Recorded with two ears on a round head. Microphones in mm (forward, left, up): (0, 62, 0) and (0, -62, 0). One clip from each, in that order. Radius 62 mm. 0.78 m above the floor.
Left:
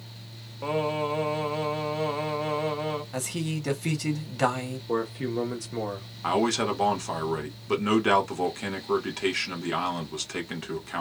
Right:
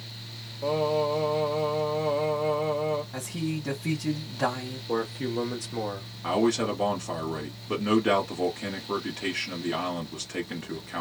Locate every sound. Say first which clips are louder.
0.6 s singing: right 2 dB; 60° left (ahead or behind), 1.1 m
3.1 s a man speaking: left 1 dB; 50° left (ahead or behind), 1.4 m
4.9 s a man speaking: even; centre (ahead or behind), 0.6 m
6.2 s a man speaking: even; 30° left (ahead or behind), 1.4 m